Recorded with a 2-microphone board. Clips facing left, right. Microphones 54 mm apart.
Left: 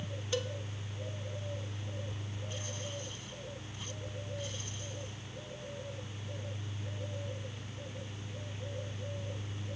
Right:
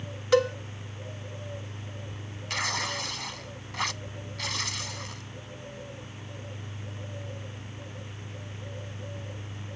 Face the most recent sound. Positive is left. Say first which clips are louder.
# right 14 dB
turn(degrees=-80)